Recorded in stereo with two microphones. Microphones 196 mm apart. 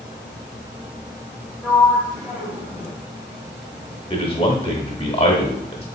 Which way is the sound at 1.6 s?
15° right (ahead or behind).